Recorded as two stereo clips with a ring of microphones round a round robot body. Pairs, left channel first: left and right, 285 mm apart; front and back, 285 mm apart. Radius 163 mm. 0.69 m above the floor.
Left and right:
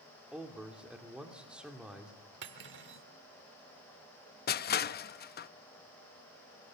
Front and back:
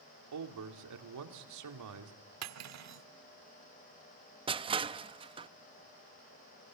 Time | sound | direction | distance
0.3 | a man speaking | 175° right | 2.5 m
2.4 | cutlery clinking | 145° right | 1.1 m
4.5 | crushing | 120° left | 0.6 m